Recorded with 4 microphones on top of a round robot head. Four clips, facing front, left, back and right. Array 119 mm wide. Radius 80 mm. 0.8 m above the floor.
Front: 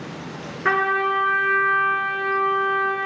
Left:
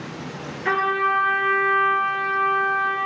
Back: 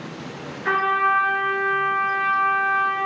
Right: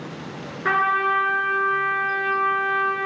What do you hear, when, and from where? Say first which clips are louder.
0.7 s a trumpet: right 1 dB, back 1 dB; 35° right, 2.5 m